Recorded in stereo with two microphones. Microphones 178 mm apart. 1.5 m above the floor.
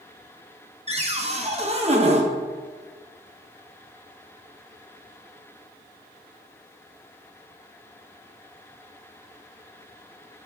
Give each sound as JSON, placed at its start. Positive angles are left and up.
{"t": 0.9, "sound": "a cupboard door", "side_deg": -35, "distance_m": 0.9}